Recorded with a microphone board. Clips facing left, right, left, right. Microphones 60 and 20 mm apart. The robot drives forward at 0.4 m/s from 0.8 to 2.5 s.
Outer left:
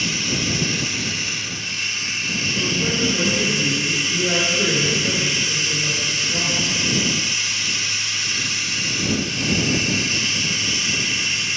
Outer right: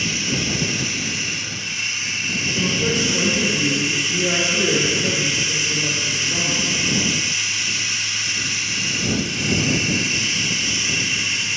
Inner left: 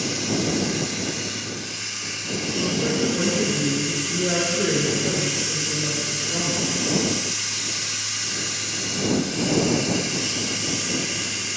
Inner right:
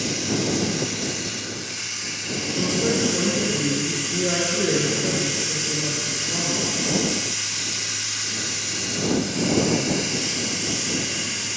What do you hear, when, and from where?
0.0 s running water: 20° right (ahead or behind), 6 m; by 11.6 s 15° right (ahead or behind), 6.5 m
2.5 s a woman speaking: 15° right (ahead or behind), 4 m